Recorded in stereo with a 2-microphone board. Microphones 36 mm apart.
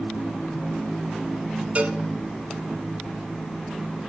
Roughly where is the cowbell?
Right.